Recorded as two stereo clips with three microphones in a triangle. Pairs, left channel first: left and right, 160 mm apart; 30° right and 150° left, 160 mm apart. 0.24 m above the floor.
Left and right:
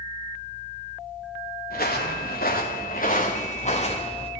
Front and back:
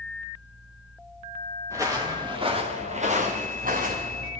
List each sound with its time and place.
1.7 s footsteps: 80° left, 1.9 m; by 4.3 s 140° left, 2 m